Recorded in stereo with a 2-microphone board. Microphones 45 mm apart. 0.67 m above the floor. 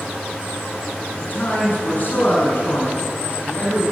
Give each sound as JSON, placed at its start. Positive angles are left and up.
{"t": 1.2, "sound": "a man speaking", "side_deg": 50, "distance_m": 6.0}